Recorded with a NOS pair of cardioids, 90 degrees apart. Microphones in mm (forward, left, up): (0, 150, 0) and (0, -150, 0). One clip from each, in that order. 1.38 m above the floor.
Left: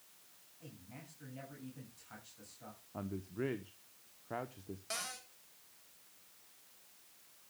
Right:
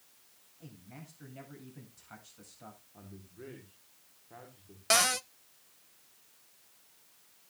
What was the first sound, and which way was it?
A man speaking, 30° right.